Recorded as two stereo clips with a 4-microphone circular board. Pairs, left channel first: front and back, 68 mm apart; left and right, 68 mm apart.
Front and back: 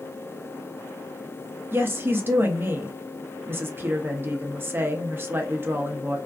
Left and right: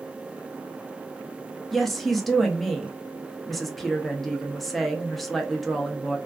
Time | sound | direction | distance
1.7 | a woman speaking | 175° left | 0.6 m